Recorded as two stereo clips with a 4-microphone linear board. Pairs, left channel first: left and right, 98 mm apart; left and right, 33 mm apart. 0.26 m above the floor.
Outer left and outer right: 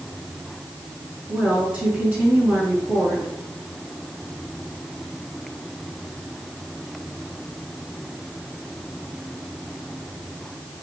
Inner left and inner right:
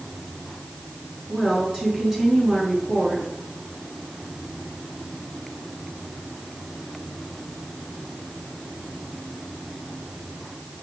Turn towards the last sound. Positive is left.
turn(degrees=-15)  # may be behind; listen again after turning